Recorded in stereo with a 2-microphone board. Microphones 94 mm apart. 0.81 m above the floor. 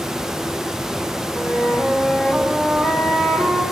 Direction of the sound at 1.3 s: 20° left (ahead or behind).